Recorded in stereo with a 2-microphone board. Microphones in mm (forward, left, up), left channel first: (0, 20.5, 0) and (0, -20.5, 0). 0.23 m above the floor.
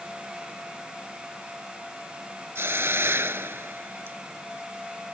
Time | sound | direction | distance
2.5 | a hiss | 80° right | ?